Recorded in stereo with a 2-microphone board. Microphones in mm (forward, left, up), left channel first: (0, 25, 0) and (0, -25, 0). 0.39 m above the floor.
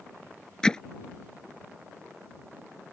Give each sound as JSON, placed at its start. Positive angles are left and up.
{"t": 0.6, "sound": "hammering", "side_deg": 15}